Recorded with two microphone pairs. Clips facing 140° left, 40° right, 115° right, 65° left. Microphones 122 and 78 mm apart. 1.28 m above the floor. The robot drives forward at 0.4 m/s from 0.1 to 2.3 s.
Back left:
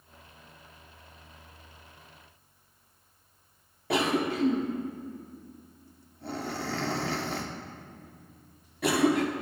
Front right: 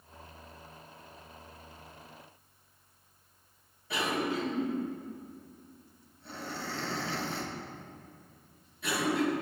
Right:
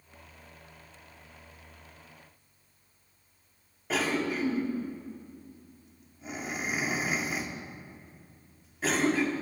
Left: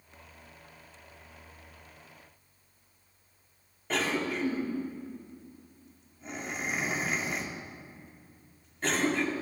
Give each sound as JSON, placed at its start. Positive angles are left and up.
{"t": 3.9, "sound": "a cough", "azimuth_deg": 155, "distance_m": 2.5}